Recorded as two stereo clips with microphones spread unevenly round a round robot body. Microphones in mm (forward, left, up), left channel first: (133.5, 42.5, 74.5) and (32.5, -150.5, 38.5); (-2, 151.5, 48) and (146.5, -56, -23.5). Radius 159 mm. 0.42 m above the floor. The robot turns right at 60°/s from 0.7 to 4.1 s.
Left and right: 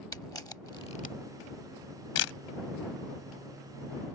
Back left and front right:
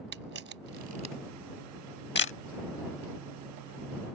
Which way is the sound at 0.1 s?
15° right.